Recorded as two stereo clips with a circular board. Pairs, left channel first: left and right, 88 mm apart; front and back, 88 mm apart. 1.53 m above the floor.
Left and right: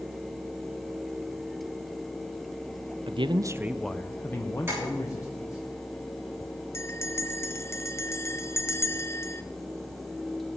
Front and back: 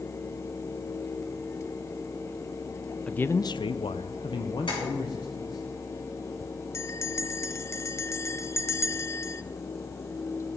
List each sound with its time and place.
3.1 s a man speaking: 80° right, 0.6 m; by 5.7 s 40° left, 2 m
4.7 s tapping: 30° right, 7.5 m
6.7 s a bell: 45° left, 0.6 m